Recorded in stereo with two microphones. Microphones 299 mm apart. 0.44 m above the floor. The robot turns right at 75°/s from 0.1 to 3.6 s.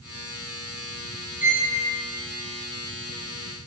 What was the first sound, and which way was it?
A violin, 30° left (ahead or behind).